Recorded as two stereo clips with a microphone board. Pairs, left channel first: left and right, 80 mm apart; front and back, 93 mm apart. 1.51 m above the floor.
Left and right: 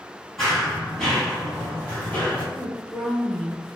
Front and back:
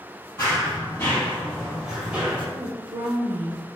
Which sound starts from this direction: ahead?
Running footsteps, at 0.4 s.